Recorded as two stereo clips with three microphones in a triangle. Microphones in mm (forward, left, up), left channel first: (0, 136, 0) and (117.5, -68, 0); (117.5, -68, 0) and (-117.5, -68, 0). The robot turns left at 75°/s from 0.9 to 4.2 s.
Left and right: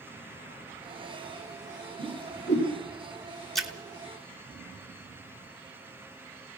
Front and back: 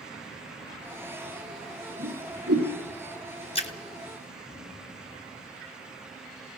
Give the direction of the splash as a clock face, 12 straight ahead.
11 o'clock.